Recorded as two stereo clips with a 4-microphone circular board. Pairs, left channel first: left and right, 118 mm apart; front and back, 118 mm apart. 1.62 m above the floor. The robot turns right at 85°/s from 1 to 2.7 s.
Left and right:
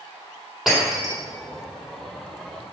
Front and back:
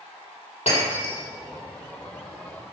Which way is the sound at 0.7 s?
Straight ahead.